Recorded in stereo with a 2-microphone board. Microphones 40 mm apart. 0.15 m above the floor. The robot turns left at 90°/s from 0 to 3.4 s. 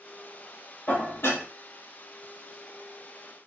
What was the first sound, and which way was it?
Dishes clattering, 130° left.